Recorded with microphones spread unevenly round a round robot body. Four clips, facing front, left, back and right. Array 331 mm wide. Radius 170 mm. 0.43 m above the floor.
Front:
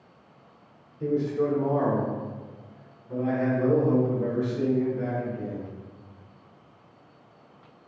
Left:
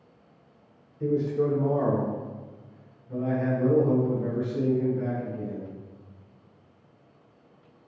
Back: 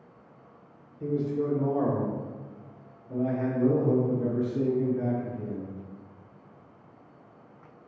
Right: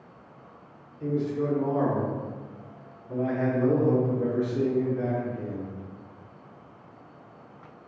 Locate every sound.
1.0 s a man speaking: 65° left, 1.1 m; by 5.7 s 85° right, 2.5 m